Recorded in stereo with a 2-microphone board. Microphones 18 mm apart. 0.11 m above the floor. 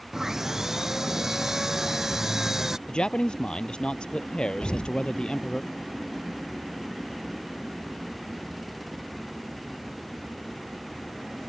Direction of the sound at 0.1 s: 20° right (ahead or behind).